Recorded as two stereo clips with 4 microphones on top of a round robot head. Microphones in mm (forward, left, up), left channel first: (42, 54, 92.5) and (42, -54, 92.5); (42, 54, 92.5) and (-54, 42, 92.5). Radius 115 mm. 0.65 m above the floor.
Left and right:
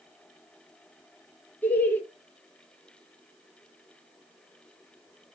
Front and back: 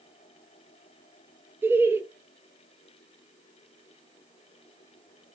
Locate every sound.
1.6 s laughter: 145° left, 0.7 m